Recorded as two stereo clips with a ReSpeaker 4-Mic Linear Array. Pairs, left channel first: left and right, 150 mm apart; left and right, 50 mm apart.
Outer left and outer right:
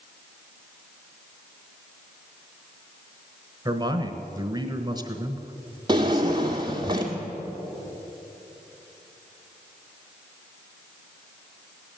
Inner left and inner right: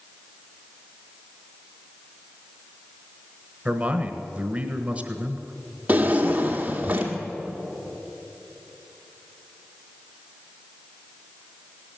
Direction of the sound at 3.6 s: 25° right (ahead or behind).